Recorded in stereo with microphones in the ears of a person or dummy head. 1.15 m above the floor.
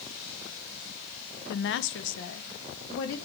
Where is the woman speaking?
45° left (ahead or behind), 0.6 m; by 3.1 s 70° left (ahead or behind), 2.5 m.